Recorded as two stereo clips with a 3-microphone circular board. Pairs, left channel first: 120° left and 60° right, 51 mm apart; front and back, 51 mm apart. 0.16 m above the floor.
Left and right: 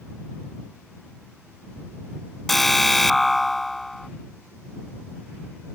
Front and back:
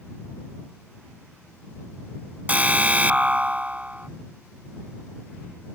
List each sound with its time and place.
2.5 s an alarm: 155° right